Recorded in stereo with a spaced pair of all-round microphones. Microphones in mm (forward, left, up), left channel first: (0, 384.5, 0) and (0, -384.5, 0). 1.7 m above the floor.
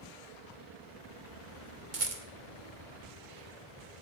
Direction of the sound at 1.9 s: 75° right (ahead or behind).